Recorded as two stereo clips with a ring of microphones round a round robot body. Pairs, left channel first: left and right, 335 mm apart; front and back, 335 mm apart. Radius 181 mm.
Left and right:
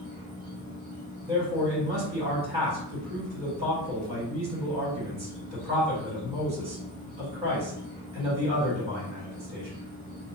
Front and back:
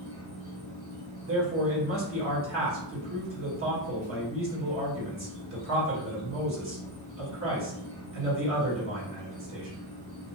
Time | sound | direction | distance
0.0 | an insect | 120° left | 2.0 m
1.3 | a man speaking | 155° right | 1.4 m